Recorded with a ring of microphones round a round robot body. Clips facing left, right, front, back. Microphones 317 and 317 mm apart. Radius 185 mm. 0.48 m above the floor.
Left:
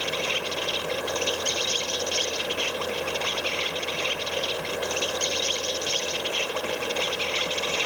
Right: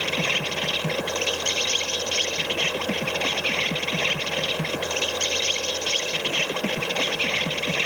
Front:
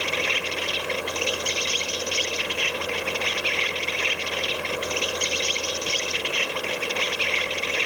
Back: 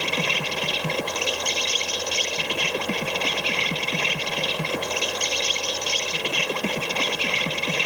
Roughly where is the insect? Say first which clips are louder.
Right 1 dB, back 1 dB; behind right.